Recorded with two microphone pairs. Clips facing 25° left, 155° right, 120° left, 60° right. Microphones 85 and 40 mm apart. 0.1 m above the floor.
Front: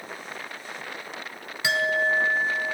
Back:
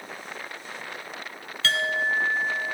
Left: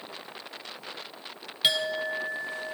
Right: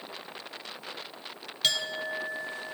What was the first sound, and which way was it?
A clink, 80° left.